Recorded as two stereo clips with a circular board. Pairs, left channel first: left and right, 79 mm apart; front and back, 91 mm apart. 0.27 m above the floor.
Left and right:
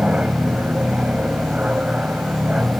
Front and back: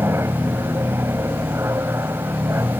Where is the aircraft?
155° right.